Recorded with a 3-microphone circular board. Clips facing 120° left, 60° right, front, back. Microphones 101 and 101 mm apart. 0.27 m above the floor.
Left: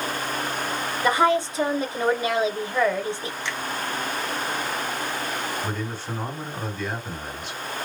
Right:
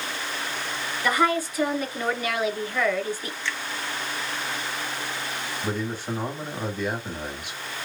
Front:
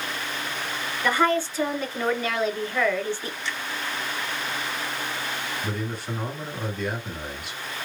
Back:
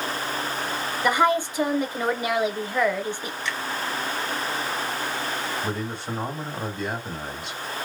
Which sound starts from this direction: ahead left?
A finger snap, at 3.5 s.